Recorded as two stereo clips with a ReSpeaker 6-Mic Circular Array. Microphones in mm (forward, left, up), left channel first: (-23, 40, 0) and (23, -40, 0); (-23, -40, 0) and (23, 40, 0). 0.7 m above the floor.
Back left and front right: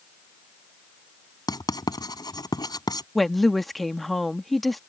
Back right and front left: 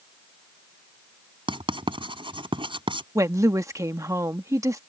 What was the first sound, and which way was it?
Writing, 80° left.